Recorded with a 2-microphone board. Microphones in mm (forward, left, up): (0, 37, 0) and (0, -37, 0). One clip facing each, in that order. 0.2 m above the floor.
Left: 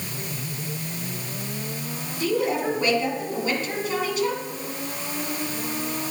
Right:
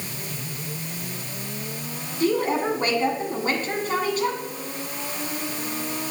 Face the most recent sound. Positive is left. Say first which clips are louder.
# right 2 dB
turn(degrees=-45)  # may be behind; listen again after turning